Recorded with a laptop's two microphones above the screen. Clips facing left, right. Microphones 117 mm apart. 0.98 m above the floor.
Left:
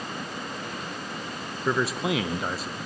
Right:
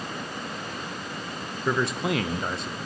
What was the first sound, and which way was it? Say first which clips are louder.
A man speaking: even; 5° left (ahead or behind).